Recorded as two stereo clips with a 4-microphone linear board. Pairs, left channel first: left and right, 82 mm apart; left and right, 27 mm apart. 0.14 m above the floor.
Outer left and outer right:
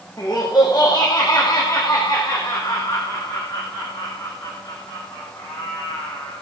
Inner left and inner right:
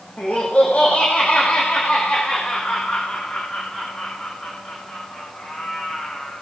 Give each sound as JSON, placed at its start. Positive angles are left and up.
{"t": 0.2, "sound": "laughter", "side_deg": 55, "distance_m": 7.0}